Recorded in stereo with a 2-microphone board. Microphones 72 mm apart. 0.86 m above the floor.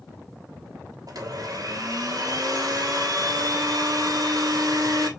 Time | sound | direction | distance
1.1 | a blender | 60° right (ahead or behind) | 1.1 m